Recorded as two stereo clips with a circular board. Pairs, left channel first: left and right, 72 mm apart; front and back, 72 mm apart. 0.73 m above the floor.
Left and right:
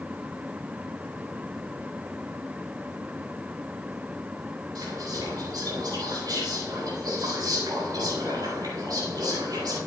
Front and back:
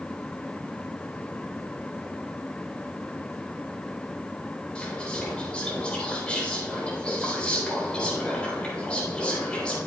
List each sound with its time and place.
4.8 s whispering: 75° right, 3.5 m